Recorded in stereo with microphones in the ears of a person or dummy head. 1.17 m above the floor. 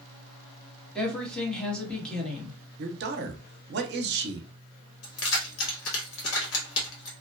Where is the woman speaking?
10° left (ahead or behind), 1.1 m.